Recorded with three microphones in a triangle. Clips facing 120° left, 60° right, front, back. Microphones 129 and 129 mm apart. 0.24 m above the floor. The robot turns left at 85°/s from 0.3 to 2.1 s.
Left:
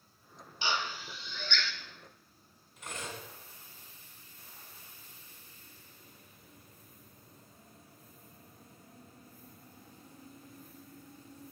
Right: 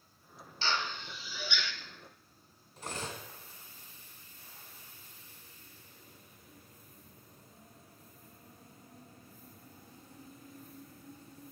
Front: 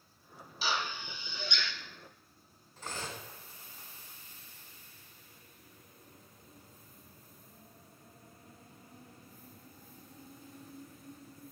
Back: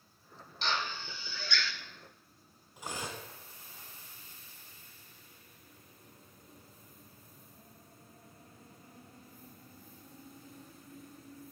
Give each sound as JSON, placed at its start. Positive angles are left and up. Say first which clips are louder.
{"t": 0.6, "sound": "a drill", "louder": "even, even", "azimuth_deg": 75, "distance_m": 0.7}
{"t": 2.8, "sound": "cutlery clinking", "louder": "right 2 dB, back 1 dB", "azimuth_deg": -105, "distance_m": 1.3}